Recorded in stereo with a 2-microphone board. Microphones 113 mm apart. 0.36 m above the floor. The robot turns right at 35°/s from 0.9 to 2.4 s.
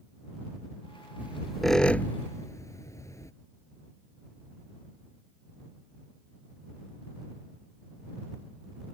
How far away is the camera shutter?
No camera shutter in this recording.